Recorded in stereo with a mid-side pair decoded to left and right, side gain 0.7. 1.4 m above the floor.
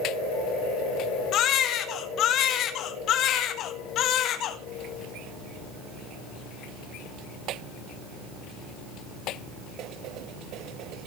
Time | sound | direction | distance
1.3 | a baby crying | 50° left | 1.5 m